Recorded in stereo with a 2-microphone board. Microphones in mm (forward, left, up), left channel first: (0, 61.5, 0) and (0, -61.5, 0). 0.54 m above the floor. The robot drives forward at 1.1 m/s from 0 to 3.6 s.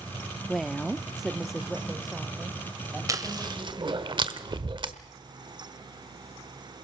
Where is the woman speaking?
Centre (ahead or behind), 0.6 m.